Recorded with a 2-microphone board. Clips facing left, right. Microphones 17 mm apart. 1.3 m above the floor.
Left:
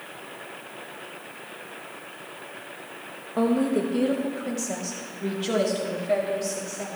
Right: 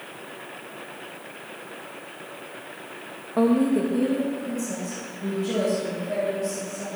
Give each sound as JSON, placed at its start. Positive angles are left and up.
{"t": 3.4, "sound": "a woman speaking", "side_deg": 0, "distance_m": 0.6}